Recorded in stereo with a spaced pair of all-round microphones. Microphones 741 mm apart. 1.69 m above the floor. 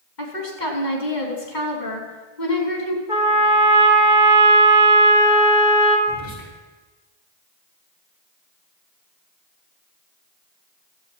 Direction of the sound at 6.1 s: 25° right (ahead or behind).